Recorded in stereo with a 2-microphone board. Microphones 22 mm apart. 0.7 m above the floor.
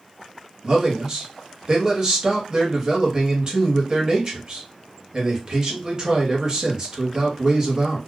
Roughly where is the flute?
I don't hear a flute.